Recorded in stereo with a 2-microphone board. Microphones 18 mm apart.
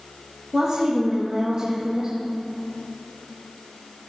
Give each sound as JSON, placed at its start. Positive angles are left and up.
{"t": 0.5, "sound": "a woman speaking", "side_deg": -50, "distance_m": 1.9}